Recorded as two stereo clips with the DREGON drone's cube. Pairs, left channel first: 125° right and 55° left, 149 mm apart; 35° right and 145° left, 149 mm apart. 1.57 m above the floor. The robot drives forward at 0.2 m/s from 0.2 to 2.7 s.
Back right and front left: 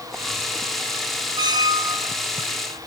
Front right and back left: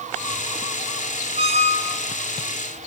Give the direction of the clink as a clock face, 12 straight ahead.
No clink in this recording.